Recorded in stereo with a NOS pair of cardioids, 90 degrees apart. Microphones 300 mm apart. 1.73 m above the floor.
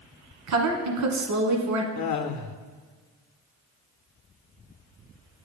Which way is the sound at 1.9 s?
70° left.